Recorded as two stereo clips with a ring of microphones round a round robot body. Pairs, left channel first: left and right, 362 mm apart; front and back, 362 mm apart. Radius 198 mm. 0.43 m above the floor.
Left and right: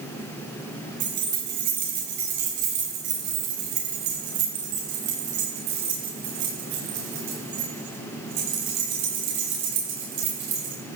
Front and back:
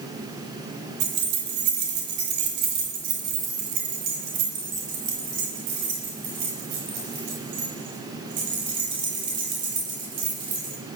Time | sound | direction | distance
1.0 | keys jangling | 155° right | 4 m